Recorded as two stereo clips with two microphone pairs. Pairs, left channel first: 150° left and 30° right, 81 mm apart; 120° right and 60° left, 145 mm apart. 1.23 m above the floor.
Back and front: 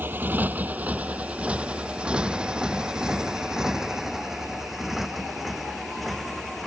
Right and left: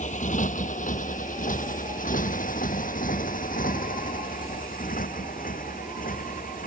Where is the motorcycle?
95° right; by 6.7 s 120° right.